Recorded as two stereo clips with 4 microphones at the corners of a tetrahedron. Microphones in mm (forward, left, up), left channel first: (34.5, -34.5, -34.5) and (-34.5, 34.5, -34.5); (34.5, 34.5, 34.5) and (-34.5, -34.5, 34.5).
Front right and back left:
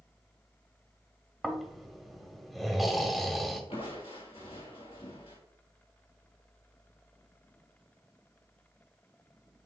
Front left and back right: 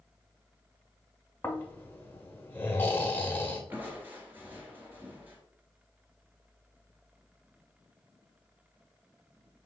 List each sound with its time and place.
1.4 s snoring: 45° left, 1.0 m
3.7 s crushing: 65° right, 1.7 m